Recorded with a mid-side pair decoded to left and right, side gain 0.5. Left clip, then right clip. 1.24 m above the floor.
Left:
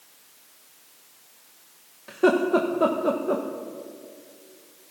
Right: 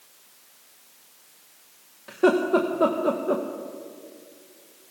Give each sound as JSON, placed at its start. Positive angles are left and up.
{"t": 2.1, "sound": "laughter", "azimuth_deg": -5, "distance_m": 1.3}